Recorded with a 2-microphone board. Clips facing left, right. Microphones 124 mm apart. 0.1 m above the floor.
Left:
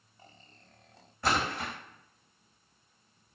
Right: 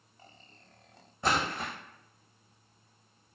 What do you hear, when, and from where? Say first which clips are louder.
1.2 s a splash: even; 20° right (ahead or behind), 1.5 m